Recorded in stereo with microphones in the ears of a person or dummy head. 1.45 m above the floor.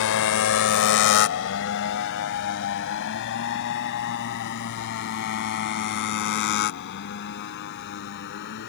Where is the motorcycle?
70° left (ahead or behind); by 8.7 s 65° left (ahead or behind).